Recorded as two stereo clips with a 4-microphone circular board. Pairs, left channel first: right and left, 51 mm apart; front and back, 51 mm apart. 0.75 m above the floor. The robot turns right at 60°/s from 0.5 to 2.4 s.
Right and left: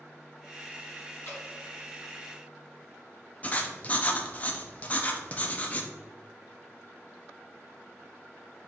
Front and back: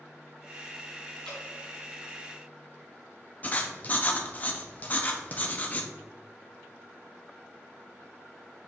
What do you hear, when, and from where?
1.2 s dripping: 75° right, 1.5 m; by 1.4 s 60° right, 1.5 m
3.4 s writing: 45° right, 0.5 m